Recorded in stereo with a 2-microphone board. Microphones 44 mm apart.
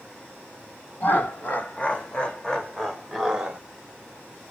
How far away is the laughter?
About 1.4 m.